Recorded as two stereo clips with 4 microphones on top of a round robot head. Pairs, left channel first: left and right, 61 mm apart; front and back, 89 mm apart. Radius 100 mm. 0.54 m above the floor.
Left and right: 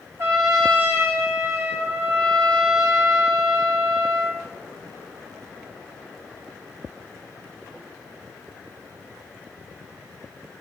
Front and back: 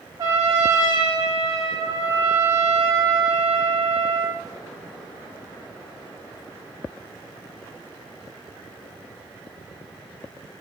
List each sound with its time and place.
0.2 s a trumpet: 130° right, 1.5 m